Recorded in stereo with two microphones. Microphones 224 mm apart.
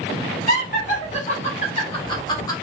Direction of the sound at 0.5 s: 35° left (ahead or behind).